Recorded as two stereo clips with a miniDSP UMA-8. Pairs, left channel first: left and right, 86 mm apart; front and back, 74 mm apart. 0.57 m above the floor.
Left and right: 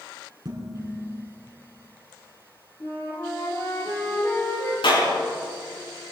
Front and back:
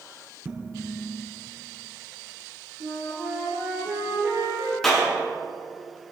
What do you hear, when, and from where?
0.5 s dishes clattering: 115° right, 4.5 m
2.8 s a flute: 150° left, 5 m
4.8 s a clap: 85° left, 5.5 m